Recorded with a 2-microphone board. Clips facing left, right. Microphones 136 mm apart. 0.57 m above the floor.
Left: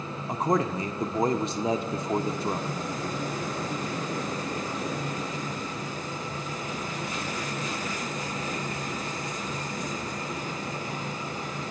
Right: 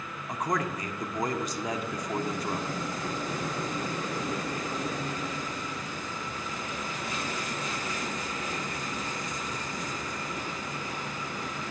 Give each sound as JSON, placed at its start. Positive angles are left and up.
{"t": 0.3, "sound": "a man speaking", "side_deg": 30, "distance_m": 0.9}